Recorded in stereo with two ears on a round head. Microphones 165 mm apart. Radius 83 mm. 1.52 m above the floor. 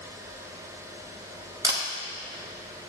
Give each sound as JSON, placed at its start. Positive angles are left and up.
{"t": 1.6, "sound": "a camera shutter", "side_deg": -20, "distance_m": 1.1}